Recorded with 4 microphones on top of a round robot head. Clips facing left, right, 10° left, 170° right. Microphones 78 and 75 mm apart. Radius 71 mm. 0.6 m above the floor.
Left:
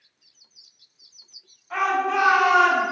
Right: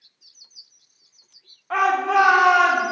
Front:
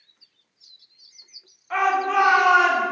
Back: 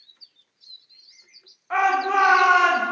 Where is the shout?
100° right, 1.7 m; by 2.8 s 80° right, 1.8 m.